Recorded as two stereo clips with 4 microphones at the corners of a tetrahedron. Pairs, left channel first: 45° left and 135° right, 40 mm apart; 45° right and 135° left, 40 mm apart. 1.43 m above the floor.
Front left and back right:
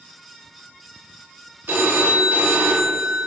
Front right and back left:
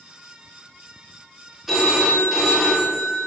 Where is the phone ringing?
140° right, 0.5 m.